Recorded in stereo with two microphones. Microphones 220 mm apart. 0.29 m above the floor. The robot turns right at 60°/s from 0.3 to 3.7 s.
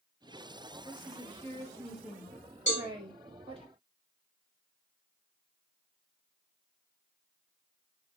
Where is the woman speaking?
20° left (ahead or behind), 1.0 m; by 3.7 s 25° right (ahead or behind), 1.0 m.